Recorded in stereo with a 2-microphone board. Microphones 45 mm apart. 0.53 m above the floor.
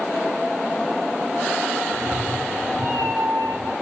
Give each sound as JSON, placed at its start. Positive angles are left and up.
{"t": 1.9, "sound": "a cat meowing", "side_deg": -85, "distance_m": 6.5}